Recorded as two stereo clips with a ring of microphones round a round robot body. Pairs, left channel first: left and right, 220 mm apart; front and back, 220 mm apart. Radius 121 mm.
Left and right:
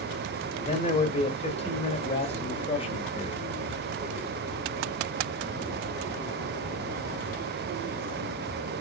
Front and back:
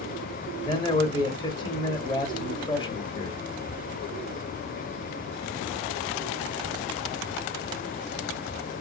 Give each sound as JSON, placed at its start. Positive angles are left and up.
{"t": 0.6, "sound": "a man speaking", "azimuth_deg": 55, "distance_m": 1.6}